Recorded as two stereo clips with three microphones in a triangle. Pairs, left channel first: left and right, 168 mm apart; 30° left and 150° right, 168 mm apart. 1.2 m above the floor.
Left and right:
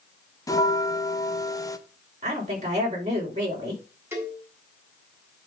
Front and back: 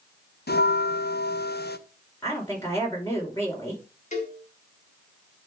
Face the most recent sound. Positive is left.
turn(degrees=-15)